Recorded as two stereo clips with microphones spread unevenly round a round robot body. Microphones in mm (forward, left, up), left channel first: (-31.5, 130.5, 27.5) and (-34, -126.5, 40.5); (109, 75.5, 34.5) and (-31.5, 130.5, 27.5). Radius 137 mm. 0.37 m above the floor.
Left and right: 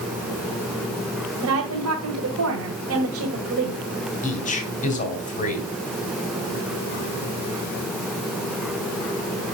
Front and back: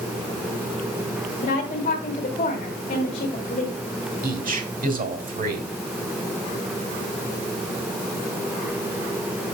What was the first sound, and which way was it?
A woman speaking, 70° right.